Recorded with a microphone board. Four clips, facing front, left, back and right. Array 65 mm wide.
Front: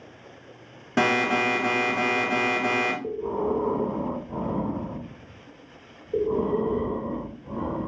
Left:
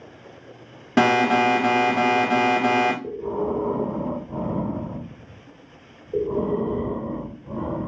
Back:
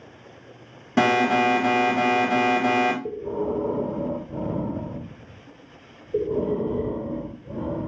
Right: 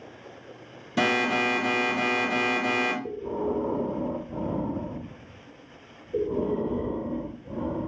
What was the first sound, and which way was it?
An alarm, 90° left.